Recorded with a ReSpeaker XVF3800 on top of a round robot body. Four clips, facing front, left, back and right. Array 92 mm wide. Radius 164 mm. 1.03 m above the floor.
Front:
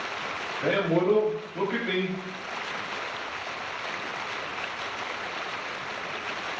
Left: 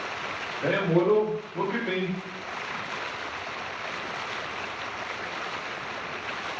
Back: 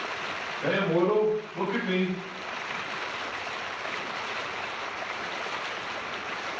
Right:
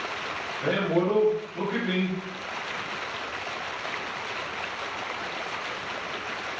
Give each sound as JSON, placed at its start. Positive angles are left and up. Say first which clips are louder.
{"t": 0.6, "sound": "a man speaking", "louder": "left 2 dB, front 1 dB", "azimuth_deg": 20, "distance_m": 1.8}